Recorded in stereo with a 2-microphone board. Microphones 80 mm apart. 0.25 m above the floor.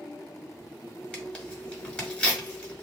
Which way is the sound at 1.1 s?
10° left (ahead or behind).